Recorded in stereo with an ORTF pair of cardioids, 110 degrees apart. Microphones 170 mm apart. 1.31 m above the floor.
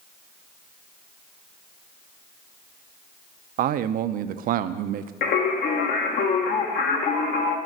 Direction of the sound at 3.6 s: 60° right.